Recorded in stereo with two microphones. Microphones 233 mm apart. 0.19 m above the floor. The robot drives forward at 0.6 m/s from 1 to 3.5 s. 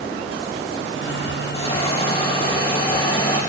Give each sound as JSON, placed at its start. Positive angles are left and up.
{"t": 1.5, "sound": "a hiss", "side_deg": 25, "distance_m": 5.5}